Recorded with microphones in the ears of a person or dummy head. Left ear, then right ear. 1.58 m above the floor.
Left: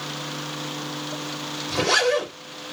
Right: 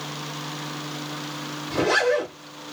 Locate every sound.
1.7 s a zipper: 25° left (ahead or behind), 2.5 m